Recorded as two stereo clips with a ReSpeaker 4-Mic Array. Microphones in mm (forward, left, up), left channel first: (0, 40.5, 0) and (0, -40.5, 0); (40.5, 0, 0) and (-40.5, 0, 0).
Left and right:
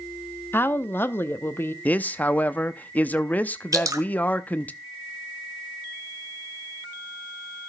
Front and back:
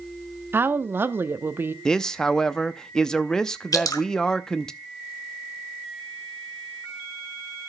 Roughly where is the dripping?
Ahead right.